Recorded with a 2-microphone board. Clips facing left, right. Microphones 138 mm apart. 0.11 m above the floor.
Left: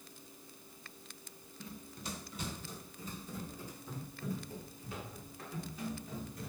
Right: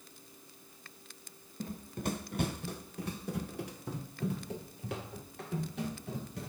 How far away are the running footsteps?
About 0.8 m.